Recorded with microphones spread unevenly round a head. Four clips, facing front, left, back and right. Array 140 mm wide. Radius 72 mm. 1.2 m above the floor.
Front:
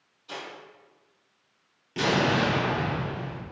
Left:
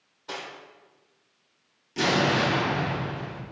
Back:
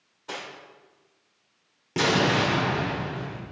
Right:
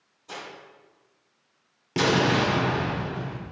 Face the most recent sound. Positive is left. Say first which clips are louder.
# right 2 dB, back 1 dB
turn(degrees=-125)